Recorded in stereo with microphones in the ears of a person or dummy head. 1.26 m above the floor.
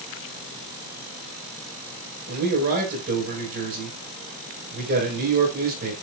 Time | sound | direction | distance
2.3 | a man speaking | 50° right (ahead or behind) | 5.5 m